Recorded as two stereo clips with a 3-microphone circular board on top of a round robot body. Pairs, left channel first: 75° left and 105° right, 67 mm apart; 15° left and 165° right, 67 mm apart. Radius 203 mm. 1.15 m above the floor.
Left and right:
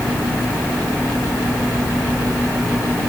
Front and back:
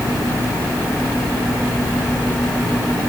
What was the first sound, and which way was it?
Only background noise.